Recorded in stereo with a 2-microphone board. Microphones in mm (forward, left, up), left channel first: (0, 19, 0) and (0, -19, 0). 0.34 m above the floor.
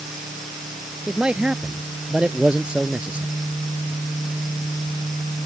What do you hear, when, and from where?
1.1 s a man speaking: 25° right (ahead or behind)